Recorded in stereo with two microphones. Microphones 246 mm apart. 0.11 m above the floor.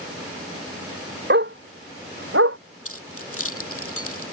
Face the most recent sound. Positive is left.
turn(degrees=65)  # may be behind; listen again after turning